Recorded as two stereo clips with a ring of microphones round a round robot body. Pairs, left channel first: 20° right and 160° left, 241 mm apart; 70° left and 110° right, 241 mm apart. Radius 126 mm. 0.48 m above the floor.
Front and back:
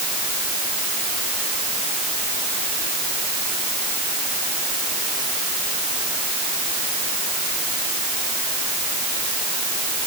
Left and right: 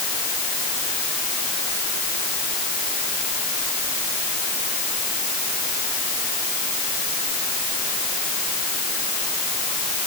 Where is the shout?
I don't hear a shout.